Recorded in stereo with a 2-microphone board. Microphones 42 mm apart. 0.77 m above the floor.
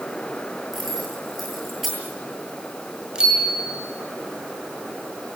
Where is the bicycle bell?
15° right (ahead or behind), 7.5 m.